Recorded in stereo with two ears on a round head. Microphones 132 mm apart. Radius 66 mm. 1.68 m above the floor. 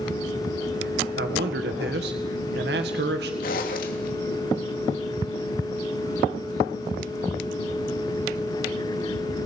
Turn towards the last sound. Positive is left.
turn(degrees=65)  # may be behind; listen again after turning